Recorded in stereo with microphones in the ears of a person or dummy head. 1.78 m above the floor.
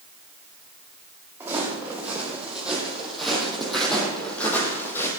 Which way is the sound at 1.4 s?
10° right (ahead or behind).